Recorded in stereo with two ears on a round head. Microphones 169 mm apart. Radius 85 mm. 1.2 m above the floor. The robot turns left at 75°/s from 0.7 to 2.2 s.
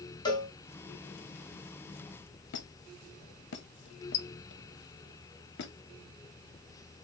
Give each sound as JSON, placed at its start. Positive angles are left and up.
{"t": 0.2, "sound": "a cowbell", "side_deg": 25, "distance_m": 1.0}
{"t": 2.5, "sound": "a squeak", "side_deg": 60, "distance_m": 0.7}